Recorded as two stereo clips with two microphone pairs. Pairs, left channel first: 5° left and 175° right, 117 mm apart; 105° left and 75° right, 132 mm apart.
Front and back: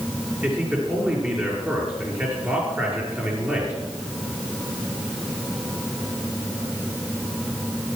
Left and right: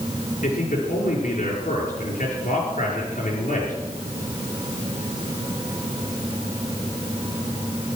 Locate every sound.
0.4 s a man speaking: 110° left, 5.5 m